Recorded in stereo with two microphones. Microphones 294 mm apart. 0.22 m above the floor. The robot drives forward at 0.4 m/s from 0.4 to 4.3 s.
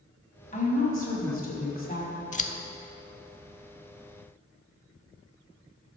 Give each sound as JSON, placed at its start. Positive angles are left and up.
{"t": 0.5, "sound": "a woman speaking", "side_deg": 25, "distance_m": 1.8}
{"t": 2.3, "sound": "scissors", "side_deg": 25, "distance_m": 0.5}